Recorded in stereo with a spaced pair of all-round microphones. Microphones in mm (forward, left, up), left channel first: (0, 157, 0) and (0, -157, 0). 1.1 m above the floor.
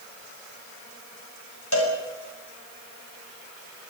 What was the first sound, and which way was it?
A cowbell, 70° left (ahead or behind).